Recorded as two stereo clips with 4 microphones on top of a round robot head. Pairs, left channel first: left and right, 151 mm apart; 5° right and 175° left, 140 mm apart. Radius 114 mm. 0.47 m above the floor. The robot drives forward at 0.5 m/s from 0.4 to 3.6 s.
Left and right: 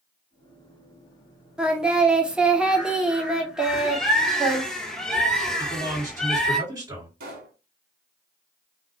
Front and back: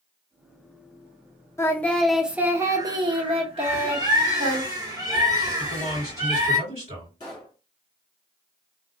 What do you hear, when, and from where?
1.6 s singing: 20° right, 0.8 m; by 4.6 s 175° right, 1.1 m
3.6 s a bird: 170° left, 1.2 m
5.6 s a man speaking: 155° right, 2.5 m
7.2 s a pop: 75° right, 0.9 m